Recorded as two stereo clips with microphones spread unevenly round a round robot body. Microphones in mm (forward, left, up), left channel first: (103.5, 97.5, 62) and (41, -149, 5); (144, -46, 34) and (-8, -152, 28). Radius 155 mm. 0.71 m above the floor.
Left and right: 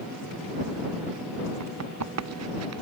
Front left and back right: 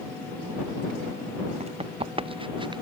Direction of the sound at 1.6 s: 90° right.